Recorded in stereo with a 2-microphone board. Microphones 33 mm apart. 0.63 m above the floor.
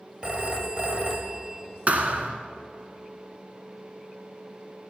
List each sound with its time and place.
0.2 s a phone ringing: 30° right (ahead or behind), 1.7 m
1.9 s a thud: 50° right (ahead or behind), 1.6 m